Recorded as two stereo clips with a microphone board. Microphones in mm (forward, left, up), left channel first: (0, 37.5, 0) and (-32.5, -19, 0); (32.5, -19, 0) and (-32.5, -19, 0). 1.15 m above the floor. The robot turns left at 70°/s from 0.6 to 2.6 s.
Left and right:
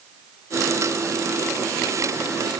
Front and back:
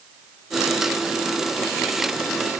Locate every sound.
Only background noise.